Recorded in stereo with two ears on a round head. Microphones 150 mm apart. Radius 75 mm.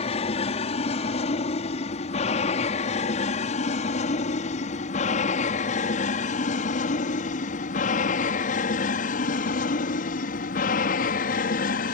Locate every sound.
0.0 s an aircraft: 40° left (ahead or behind); by 11.9 s 55° left (ahead or behind)